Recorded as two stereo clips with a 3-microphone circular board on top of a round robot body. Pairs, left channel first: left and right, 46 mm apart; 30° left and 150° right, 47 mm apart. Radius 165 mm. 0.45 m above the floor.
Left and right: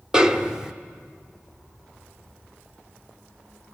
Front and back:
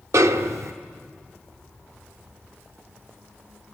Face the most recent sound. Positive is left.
turn(degrees=-165)